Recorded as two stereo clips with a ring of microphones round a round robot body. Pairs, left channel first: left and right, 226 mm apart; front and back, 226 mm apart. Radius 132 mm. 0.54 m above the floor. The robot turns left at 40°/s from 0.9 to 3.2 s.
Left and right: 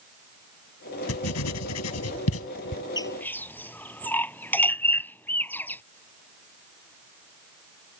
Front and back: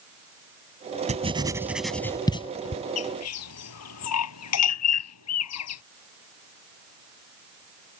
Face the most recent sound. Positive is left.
turn(degrees=10)